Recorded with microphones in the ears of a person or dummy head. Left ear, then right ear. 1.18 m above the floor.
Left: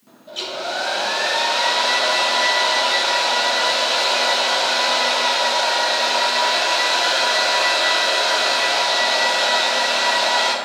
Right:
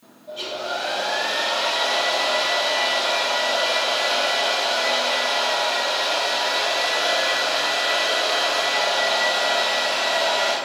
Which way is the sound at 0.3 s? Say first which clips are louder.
Left 2 dB; 50° left (ahead or behind).